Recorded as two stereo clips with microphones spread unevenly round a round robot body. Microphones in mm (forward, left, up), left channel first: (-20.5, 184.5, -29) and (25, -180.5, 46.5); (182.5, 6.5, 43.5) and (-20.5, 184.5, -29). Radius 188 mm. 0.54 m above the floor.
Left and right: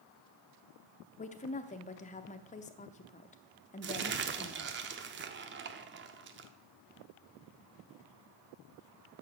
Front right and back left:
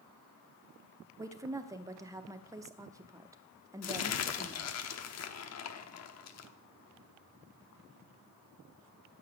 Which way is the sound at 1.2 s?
105° left.